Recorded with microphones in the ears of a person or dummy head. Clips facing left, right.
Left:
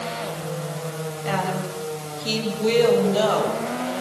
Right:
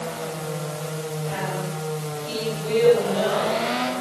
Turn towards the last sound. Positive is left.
turn(degrees=70)  # may be behind; listen again after turning